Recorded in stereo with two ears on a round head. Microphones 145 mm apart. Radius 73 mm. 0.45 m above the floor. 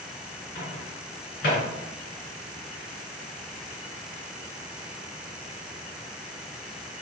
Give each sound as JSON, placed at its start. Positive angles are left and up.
{"t": 0.6, "sound": "a microwave", "side_deg": 55, "distance_m": 2.0}